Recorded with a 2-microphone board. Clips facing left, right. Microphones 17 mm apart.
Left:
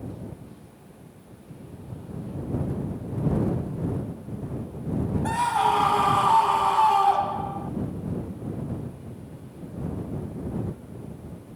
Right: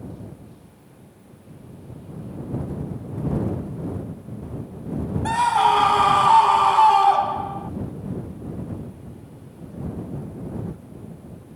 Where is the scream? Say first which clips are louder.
Right 5 dB; 25° right (ahead or behind); by 7.7 s 20° right (ahead or behind).